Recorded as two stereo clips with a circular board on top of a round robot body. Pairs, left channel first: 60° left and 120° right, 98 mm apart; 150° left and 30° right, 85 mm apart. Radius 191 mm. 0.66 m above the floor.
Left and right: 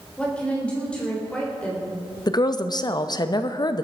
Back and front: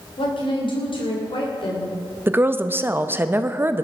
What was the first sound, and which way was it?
A woman speaking, 140° left.